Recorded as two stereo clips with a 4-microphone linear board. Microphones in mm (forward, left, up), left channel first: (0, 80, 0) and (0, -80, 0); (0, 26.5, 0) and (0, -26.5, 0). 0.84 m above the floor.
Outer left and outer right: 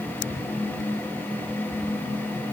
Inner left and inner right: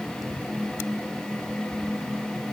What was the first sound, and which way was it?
Only background noise.